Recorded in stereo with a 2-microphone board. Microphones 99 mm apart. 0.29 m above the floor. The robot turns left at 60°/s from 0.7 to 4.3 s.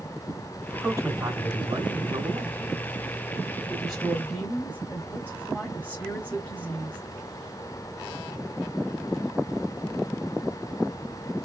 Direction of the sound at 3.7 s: 170° right.